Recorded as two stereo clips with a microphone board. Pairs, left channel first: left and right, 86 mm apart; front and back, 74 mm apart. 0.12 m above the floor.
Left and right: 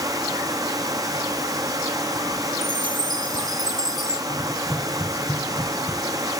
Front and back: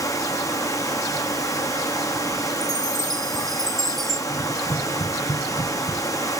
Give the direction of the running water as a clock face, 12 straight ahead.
1 o'clock.